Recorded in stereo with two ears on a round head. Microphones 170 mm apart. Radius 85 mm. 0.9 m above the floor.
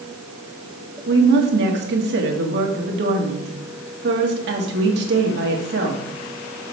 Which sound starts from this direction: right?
A woman speaking, at 1.1 s.